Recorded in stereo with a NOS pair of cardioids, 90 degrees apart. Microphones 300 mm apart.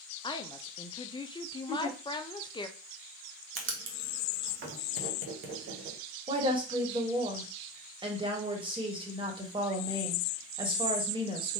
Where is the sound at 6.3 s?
15° right, 1.5 m.